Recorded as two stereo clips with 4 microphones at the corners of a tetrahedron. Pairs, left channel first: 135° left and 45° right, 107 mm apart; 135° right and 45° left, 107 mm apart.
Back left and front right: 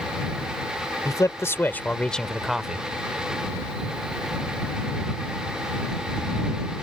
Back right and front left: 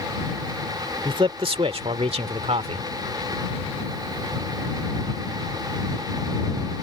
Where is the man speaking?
80° left; by 2.9 s 35° left.